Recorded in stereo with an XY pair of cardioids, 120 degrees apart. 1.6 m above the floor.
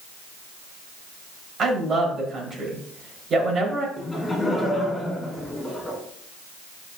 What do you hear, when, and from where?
1.6 s a woman speaking: 40° right, 5 m
4.0 s laughter: 15° left, 5 m